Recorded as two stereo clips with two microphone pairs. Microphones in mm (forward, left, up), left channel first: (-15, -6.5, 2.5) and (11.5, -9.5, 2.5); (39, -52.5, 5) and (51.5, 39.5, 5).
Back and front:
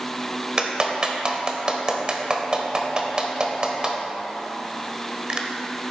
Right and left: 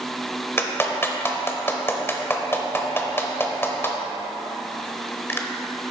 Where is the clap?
45° right, 1.1 m.